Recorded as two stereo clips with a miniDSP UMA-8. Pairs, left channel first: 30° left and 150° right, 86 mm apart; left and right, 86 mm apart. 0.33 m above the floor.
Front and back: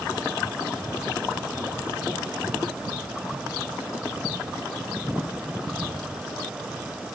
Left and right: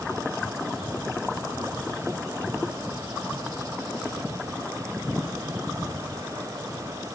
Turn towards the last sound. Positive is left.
No sound to turn to.